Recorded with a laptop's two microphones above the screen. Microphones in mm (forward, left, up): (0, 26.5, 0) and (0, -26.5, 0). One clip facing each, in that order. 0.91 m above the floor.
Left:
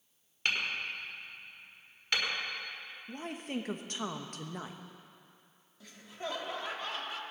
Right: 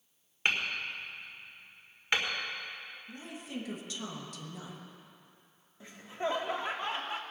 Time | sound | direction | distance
0.5 | hammering | 25° right (ahead or behind) | 1.6 m
3.1 | a woman speaking | 50° left (ahead or behind) | 1.1 m
5.8 | laughter | 25° right (ahead or behind) | 1.5 m